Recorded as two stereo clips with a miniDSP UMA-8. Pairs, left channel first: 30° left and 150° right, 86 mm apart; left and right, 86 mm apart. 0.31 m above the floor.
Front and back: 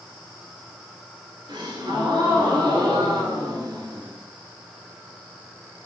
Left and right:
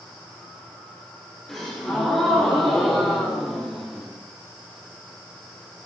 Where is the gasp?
Straight behind, 2 m.